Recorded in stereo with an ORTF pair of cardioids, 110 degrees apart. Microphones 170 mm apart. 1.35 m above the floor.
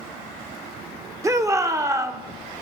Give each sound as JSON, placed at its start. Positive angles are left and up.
{"t": 1.2, "sound": "a shout", "azimuth_deg": -20, "distance_m": 1.5}